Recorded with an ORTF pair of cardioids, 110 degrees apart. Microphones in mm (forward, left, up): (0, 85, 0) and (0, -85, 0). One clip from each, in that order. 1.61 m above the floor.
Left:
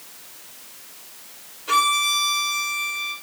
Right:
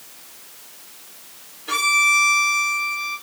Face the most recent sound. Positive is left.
turn(degrees=10)